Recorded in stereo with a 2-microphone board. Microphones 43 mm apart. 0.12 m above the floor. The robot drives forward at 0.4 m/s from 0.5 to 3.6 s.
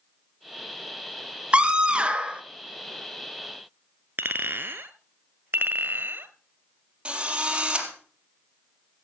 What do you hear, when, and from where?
1.5 s a scream: 25° right (ahead or behind), 1.8 m
4.2 s a clink: 60° right (ahead or behind), 1.7 m
5.5 s a clink: 55° right (ahead or behind), 1.6 m
7.0 s a drill: 25° right (ahead or behind), 4 m